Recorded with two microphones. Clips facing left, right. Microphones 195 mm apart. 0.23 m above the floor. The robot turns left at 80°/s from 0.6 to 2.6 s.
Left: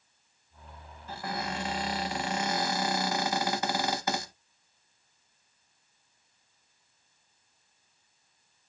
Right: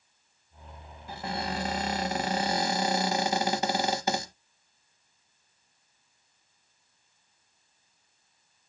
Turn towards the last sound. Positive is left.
turn(degrees=-140)